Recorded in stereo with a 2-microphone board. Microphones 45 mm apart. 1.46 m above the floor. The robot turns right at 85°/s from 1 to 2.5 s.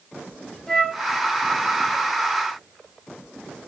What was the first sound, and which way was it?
A flute, 10° left (ahead or behind).